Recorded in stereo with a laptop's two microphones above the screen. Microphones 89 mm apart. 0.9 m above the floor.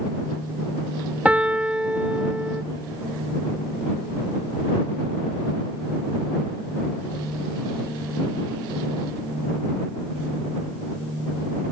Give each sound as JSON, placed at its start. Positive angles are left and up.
{"t": 1.2, "sound": "a piano", "side_deg": -15}